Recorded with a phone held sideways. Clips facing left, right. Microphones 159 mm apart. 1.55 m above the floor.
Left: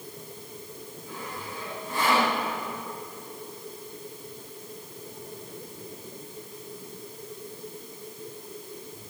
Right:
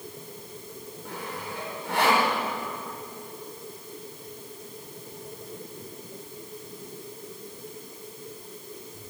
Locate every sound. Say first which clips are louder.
1.1 s sawing: right 2 dB; 85° right, 6 m